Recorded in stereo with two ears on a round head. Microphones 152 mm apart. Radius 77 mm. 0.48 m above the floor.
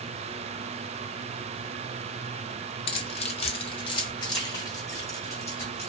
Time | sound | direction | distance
2.9 | keys jangling | 30° left (ahead or behind) | 0.5 m